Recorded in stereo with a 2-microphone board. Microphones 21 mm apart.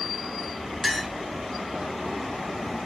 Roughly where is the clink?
Centre.